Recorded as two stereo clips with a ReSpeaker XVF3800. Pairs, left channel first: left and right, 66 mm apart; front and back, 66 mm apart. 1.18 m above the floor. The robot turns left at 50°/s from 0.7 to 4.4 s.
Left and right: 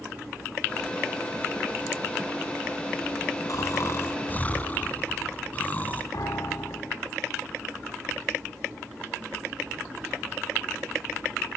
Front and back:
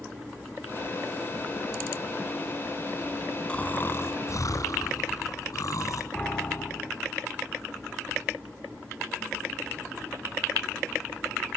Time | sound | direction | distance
3.5 | snoring | 70° left | 3 m
6.1 | a piano | 70° left | 2.5 m